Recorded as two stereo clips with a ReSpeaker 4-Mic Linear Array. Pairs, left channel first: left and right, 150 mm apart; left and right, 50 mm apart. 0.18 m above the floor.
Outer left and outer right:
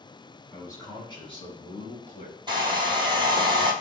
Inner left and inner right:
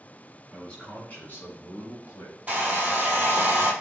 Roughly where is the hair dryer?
Right.